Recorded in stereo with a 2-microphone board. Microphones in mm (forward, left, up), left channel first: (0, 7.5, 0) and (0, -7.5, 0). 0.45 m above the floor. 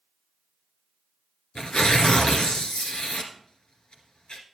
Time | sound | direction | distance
1.6 | tearing paper | 75° left (ahead or behind) | 1.8 m